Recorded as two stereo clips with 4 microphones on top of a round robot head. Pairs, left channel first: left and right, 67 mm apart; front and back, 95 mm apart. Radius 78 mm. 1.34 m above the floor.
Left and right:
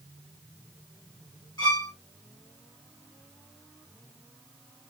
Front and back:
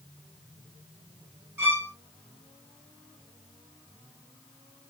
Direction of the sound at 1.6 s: 115° left.